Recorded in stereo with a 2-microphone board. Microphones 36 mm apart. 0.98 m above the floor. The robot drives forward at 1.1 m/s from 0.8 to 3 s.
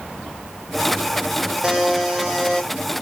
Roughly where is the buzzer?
Centre.